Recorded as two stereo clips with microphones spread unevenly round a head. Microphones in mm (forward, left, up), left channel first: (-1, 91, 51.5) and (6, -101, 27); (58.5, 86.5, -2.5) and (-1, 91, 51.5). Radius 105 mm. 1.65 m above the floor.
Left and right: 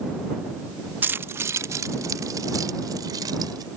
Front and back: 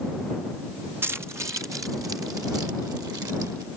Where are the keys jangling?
170° right; by 3.7 s 160° right.